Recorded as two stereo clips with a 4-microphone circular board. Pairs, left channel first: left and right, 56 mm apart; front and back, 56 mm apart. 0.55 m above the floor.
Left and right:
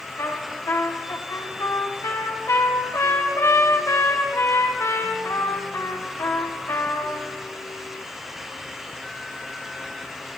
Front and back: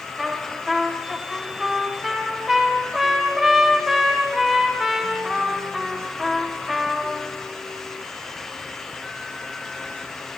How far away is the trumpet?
About 1.9 m.